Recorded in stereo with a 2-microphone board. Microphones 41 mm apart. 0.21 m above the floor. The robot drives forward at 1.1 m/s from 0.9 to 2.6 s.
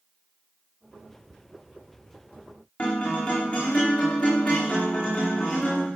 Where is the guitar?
30° left (ahead or behind), 6.5 m.